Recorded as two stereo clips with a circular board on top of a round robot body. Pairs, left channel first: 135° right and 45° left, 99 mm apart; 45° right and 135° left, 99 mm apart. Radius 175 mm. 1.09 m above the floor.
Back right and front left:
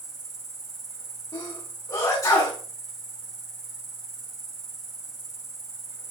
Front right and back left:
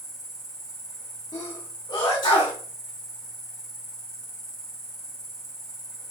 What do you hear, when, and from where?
0.0 s an insect: 35° left, 2 m
1.3 s a sneeze: 90° right, 2 m